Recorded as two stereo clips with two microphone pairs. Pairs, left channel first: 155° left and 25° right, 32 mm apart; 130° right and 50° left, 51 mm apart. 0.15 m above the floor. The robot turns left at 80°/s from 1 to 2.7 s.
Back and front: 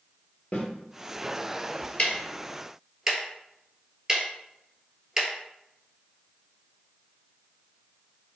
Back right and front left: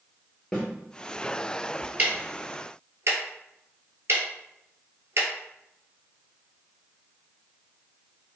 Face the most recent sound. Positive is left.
turn(degrees=45)